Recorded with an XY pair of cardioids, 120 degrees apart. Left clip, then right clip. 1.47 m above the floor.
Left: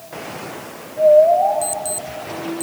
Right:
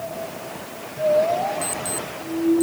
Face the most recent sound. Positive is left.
turn(degrees=20)